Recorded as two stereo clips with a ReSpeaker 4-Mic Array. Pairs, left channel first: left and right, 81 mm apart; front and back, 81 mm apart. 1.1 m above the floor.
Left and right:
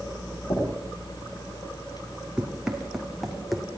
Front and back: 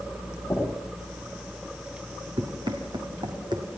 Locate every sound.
0.5 s knocking: 70° left, 7 m
2.4 s running footsteps: 170° right, 3.5 m; by 3.7 s straight behind, 2.5 m